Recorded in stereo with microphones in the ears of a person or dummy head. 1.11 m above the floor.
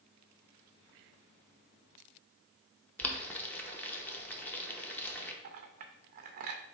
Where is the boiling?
15° left (ahead or behind), 0.7 m.